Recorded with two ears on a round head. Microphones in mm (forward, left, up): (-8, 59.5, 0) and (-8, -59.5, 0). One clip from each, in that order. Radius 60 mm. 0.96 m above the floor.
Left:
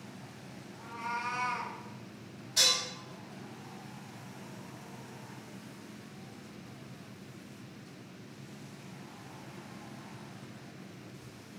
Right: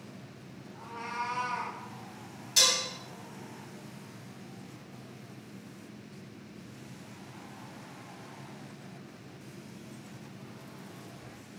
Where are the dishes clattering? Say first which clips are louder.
Right 2 dB; 75° right (ahead or behind), 1.2 m.